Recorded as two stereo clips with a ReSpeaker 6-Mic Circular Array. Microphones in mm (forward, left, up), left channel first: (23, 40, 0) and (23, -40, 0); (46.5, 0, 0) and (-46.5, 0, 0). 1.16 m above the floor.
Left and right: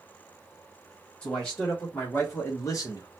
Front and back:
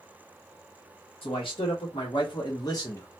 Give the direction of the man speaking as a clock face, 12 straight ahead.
11 o'clock.